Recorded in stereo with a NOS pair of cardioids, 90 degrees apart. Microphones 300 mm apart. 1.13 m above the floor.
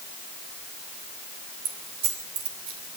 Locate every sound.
1.6 s keys jangling: 60° right, 3 m